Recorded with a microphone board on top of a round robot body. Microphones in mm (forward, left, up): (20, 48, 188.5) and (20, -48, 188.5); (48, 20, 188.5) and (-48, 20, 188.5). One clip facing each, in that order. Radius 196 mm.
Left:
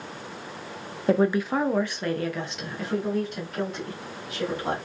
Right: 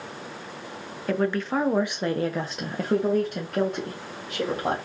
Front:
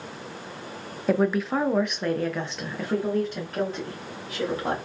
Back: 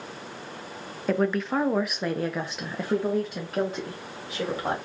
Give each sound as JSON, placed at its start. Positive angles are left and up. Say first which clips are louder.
{"t": 1.1, "sound": "a woman speaking", "louder": "left 3 dB, front 2 dB", "azimuth_deg": 75, "distance_m": 0.7}